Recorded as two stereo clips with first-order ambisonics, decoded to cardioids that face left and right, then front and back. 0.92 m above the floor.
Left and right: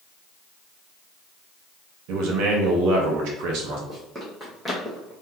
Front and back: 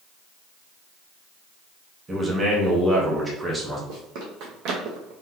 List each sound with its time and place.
2.1 s a man speaking: 105° right, 1.2 m
3.9 s running footsteps: 170° right, 2.0 m; by 5.1 s straight behind, 1.5 m